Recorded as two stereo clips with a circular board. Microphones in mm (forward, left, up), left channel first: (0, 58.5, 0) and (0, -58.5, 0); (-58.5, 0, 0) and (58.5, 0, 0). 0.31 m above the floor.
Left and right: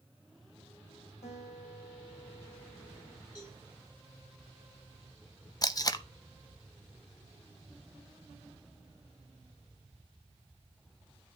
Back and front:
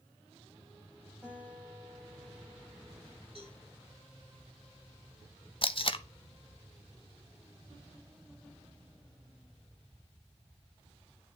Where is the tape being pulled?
145° left, 0.5 m.